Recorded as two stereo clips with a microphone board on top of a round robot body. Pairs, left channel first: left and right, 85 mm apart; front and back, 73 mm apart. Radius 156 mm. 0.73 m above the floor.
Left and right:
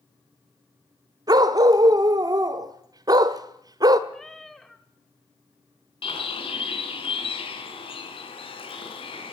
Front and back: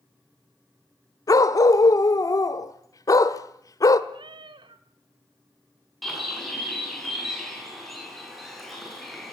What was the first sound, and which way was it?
A dog barking, 45° right.